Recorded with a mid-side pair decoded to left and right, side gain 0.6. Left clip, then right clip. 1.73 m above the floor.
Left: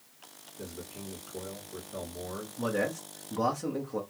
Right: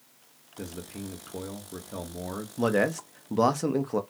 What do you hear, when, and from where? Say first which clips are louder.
0.6 s a man speaking: right 4 dB; 70° right, 1.0 m
2.6 s a man speaking: right 6 dB; 45° right, 0.7 m